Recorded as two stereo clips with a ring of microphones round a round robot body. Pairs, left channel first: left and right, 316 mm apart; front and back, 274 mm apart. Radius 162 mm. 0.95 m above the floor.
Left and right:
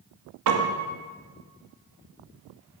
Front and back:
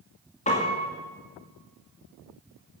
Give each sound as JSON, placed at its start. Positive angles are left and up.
{"t": 0.5, "sound": "a piano", "azimuth_deg": -65, "distance_m": 2.0}